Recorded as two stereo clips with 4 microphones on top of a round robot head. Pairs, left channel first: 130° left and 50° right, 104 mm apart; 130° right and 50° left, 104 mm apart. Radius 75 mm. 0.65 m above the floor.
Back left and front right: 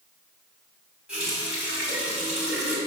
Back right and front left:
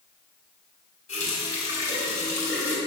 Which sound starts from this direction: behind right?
A running tap, at 1.1 s.